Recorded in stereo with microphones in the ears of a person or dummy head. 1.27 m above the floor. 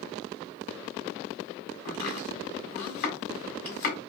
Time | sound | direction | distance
1.9 | chopping | 50° left (ahead or behind) | 1.6 m